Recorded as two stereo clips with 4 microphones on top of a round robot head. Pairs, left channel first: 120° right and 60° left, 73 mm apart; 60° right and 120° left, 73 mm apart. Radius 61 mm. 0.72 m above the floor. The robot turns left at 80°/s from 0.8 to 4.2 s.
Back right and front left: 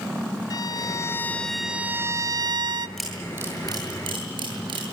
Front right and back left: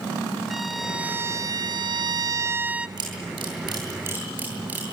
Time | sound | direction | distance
0.5 | a violin | 150° right | 1.3 m
3.0 | a camera shutter | 150° left | 8.5 m